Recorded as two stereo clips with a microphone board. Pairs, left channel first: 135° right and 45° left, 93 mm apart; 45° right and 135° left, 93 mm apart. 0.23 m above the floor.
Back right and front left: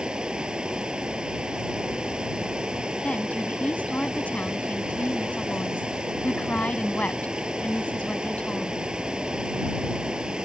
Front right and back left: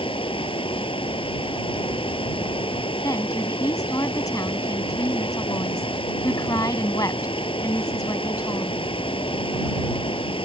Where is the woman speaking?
65° right.